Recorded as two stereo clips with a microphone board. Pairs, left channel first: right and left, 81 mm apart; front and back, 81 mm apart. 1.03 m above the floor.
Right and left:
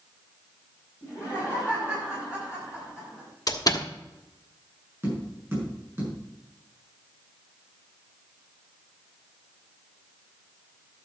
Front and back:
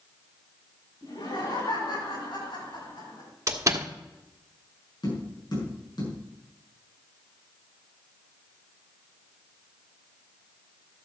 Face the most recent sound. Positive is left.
turn(degrees=25)